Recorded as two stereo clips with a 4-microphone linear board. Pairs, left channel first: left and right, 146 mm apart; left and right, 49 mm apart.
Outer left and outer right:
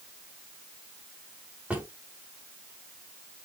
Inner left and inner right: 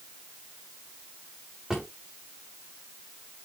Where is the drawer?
10° right (ahead or behind), 5 m.